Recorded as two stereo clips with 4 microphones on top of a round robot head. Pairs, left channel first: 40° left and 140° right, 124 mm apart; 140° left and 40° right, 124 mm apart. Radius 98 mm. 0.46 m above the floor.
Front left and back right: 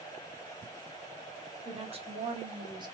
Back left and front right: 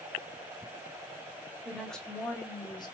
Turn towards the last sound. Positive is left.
turn(degrees=175)